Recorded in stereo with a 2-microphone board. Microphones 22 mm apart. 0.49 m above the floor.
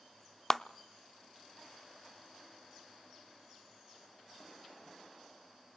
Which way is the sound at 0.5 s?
10° left (ahead or behind).